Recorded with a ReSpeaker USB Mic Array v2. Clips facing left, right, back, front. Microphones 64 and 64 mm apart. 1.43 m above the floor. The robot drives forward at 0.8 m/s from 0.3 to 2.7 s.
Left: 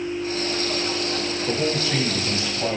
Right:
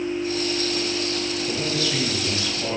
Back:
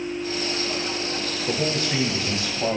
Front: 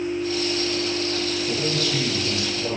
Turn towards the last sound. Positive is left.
turn(degrees=150)